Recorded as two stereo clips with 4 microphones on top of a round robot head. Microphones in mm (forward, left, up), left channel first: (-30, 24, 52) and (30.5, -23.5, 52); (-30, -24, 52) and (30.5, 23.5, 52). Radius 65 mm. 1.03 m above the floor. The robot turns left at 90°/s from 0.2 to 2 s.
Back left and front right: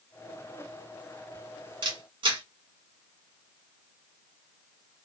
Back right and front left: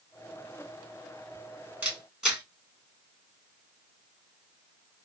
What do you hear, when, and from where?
1.8 s a camera shutter: 30° right, 1.8 m; by 2.4 s 45° right, 1.8 m